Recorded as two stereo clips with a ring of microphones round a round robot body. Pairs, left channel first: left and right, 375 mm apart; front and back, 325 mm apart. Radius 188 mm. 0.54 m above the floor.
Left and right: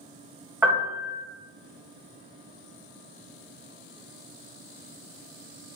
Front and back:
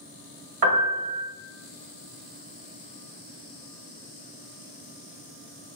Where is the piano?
175° right, 1.6 m.